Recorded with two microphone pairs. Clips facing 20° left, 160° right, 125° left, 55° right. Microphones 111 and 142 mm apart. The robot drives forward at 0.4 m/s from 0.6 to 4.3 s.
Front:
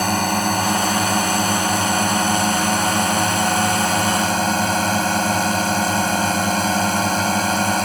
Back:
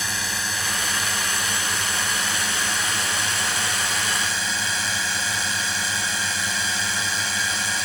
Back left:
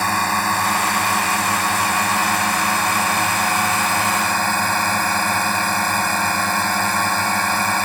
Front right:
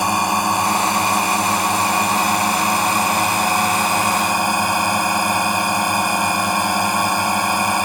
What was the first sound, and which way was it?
A drone, 15° left.